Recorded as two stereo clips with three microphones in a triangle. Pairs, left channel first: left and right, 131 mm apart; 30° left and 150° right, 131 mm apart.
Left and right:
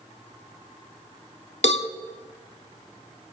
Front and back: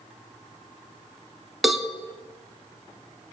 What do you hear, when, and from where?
1.6 s a cowbell: 120° left, 0.9 m